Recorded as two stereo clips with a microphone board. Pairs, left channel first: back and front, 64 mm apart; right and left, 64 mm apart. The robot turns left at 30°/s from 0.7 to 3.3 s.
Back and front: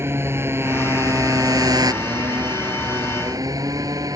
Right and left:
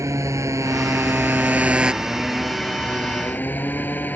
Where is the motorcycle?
50° left; by 4.2 s 30° right.